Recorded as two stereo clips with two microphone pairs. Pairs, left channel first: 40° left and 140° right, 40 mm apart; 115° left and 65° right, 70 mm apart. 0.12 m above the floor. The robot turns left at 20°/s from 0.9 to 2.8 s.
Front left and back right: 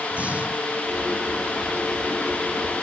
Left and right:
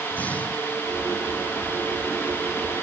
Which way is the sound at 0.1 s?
Straight behind.